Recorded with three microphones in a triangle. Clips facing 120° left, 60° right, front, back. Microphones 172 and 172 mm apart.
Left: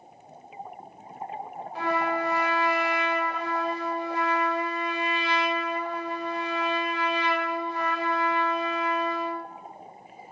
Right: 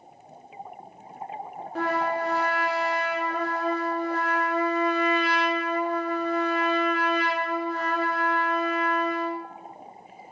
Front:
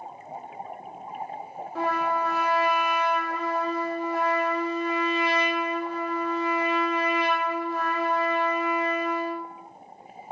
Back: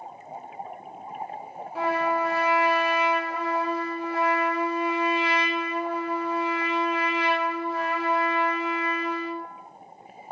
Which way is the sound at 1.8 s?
100° right.